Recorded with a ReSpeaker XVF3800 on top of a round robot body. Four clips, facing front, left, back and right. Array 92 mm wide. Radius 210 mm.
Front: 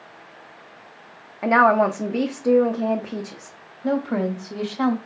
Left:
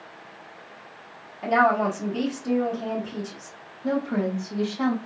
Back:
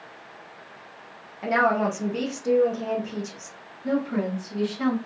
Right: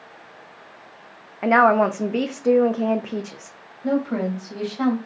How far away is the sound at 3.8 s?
About 1.7 m.